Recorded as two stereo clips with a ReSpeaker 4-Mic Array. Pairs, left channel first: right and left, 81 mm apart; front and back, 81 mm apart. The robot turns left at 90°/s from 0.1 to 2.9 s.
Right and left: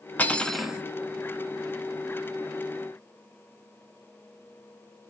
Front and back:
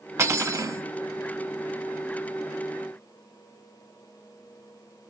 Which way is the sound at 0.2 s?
145° right.